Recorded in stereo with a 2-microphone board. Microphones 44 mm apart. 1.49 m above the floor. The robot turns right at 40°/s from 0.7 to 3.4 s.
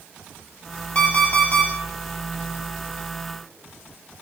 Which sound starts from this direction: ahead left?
An alarm clock, at 0.9 s.